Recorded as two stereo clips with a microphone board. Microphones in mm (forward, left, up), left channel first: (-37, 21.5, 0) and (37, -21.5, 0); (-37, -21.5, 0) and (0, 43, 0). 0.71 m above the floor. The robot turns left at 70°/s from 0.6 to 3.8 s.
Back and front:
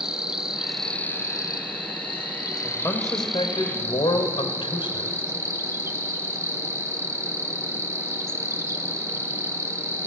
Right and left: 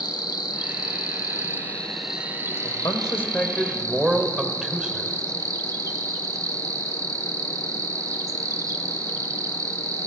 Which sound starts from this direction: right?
An insect, at 0.0 s.